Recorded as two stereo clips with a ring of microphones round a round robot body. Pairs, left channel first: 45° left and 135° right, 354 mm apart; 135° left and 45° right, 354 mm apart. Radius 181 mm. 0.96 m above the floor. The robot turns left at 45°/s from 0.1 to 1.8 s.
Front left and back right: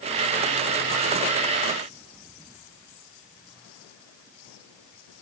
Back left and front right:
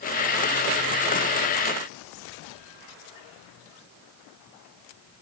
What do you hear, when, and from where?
Only background noise.